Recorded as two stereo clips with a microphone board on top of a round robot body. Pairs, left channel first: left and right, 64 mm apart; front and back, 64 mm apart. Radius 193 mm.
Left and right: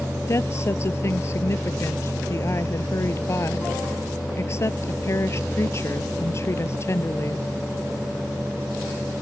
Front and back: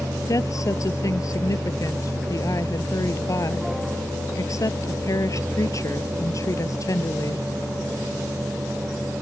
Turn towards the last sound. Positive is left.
turn(degrees=40)